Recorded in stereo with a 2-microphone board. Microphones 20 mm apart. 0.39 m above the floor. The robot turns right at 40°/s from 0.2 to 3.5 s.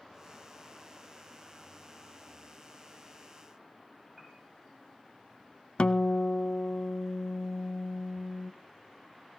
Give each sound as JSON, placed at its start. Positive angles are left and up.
{"t": 4.2, "sound": "a piano", "side_deg": 0, "distance_m": 10.0}
{"t": 5.8, "sound": "a guitar", "side_deg": 55, "distance_m": 0.6}